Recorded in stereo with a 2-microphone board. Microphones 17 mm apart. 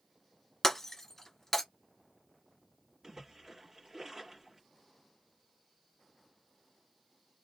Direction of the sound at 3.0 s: 40° right (ahead or behind).